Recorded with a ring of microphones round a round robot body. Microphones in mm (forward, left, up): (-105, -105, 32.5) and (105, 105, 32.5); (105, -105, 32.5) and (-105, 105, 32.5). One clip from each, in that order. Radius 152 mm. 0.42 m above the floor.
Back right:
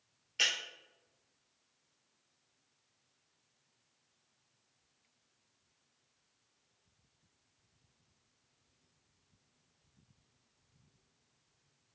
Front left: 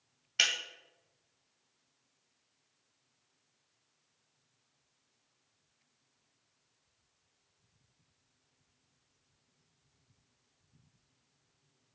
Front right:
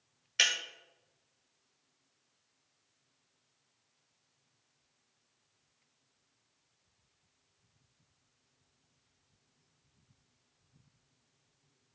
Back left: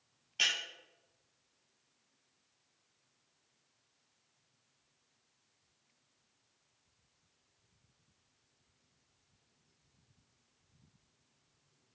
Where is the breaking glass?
15° right, 1.1 m.